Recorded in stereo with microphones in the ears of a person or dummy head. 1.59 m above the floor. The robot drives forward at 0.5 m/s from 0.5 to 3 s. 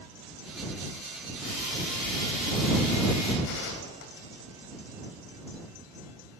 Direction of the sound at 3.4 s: 60° left (ahead or behind).